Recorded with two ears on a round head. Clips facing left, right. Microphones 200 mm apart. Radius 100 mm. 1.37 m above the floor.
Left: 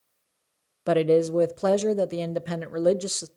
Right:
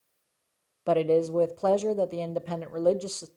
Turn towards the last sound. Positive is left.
turn(degrees=20)  # may be behind; listen again after turning